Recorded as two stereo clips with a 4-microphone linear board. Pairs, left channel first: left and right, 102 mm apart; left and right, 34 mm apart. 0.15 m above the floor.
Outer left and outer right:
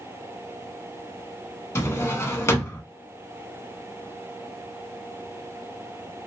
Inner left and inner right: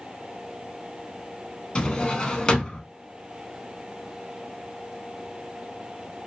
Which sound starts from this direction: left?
A drawer, at 1.8 s.